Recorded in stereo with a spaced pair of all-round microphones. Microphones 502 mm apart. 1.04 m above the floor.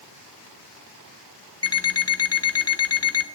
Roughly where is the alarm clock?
Left.